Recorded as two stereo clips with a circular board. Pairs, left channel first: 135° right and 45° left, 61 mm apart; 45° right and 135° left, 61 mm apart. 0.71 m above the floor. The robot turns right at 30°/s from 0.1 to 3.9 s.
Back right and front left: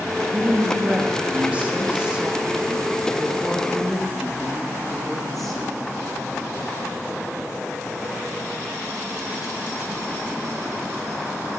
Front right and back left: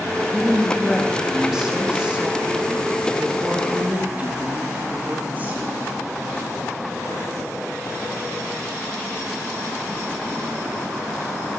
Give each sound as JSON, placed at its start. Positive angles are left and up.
{"t": 0.3, "sound": "a woman speaking", "azimuth_deg": 30, "distance_m": 1.1}